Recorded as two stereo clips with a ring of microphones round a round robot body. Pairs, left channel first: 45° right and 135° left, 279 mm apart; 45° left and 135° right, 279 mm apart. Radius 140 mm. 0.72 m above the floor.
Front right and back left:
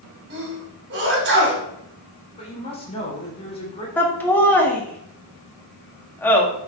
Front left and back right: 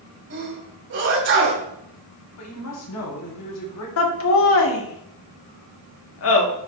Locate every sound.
0.3 s a sneeze: straight behind, 3 m
2.4 s a woman speaking: 25° left, 3 m
4.0 s laughter: 35° left, 1.4 m